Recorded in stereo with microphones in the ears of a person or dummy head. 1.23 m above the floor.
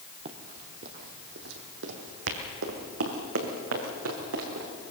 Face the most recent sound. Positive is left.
turn(degrees=-75)  # may be behind; listen again after turning